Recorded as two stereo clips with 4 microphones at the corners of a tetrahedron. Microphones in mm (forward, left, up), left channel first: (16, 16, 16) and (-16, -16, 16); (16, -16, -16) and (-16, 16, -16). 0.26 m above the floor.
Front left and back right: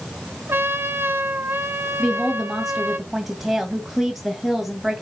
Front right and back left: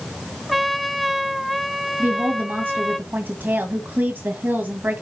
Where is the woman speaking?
140° left, 2 m.